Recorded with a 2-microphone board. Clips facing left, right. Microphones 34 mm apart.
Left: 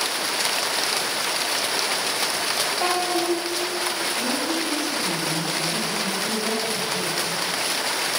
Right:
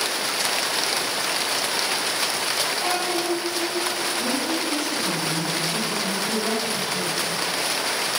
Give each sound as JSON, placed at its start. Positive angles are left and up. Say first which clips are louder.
{"t": 2.8, "sound": "a child speaking", "louder": "left 1 dB", "side_deg": 55, "distance_m": 3.5}
{"t": 4.2, "sound": "a woman speaking", "louder": "even", "side_deg": 20, "distance_m": 3.5}